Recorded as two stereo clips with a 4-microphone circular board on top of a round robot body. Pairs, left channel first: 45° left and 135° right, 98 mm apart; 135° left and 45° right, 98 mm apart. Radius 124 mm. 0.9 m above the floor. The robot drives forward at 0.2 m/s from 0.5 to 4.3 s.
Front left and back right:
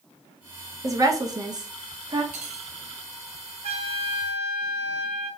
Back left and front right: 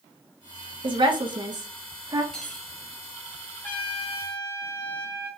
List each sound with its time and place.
0.8 s a woman speaking: 80° right, 1.0 m; by 2.2 s 95° right, 1.0 m
2.3 s cutlery clinking: 140° right, 0.7 m; by 2.7 s 145° right, 0.7 m
3.6 s a trumpet: 150° right, 0.5 m; by 5.3 s 160° right, 0.6 m